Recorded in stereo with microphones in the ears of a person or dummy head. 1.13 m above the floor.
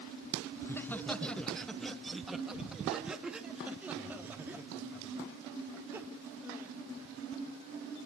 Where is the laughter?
10° left (ahead or behind), 1.3 m; by 6.7 s 15° right (ahead or behind), 4 m.